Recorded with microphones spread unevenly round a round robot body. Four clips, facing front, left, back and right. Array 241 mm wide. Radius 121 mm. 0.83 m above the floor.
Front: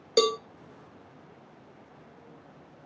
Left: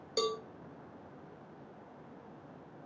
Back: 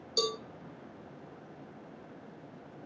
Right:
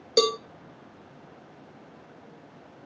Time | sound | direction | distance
0.2 | a cowbell | 60° right | 0.7 m